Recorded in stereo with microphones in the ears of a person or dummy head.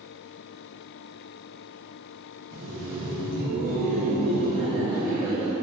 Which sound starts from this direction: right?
Laughter, at 2.5 s.